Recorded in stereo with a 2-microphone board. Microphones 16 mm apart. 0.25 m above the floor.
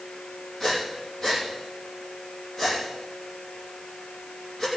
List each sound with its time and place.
0.6 s breathing: 30° left (ahead or behind), 6 m